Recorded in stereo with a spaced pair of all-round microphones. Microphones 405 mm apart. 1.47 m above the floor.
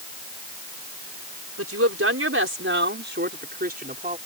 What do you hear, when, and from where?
1.6 s a woman speaking: 35° right (ahead or behind); by 4.2 s 20° right (ahead or behind)